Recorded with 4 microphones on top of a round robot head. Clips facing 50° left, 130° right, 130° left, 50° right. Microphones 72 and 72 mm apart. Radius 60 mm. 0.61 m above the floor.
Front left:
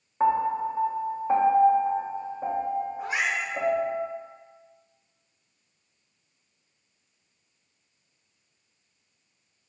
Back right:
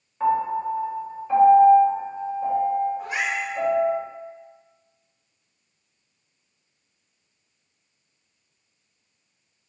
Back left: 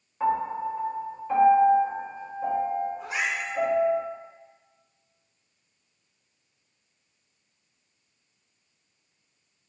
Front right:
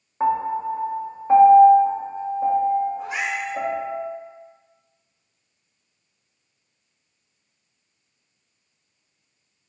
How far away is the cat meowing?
About 1.8 m.